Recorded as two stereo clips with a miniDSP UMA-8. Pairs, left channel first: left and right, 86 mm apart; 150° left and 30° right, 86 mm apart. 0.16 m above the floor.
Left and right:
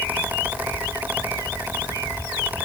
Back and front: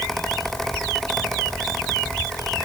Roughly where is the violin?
No violin in this recording.